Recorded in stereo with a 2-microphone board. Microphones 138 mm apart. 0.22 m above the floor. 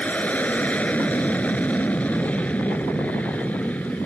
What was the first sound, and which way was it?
An aircraft, 10° left (ahead or behind).